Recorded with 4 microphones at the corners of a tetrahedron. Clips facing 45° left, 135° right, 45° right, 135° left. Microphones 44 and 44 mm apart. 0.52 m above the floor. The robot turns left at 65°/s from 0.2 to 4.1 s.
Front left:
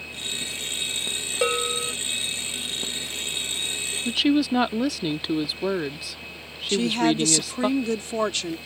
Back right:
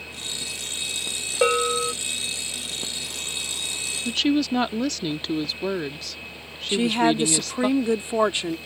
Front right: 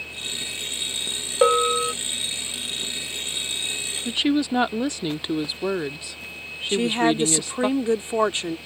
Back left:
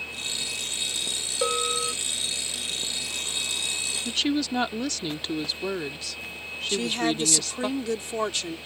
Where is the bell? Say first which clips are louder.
Back right 4 dB, front right 9 dB; 70° right; by 1.9 s 100° right.